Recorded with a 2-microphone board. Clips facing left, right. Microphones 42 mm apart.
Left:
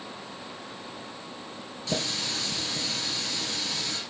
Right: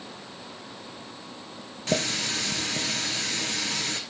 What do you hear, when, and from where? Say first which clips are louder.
1.9 s a running tap: right 4 dB; 50° right (ahead or behind), 1.7 m